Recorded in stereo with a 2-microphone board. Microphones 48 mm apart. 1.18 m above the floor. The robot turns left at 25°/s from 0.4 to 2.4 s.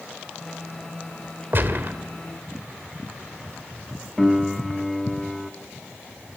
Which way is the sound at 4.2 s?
5° left (ahead or behind).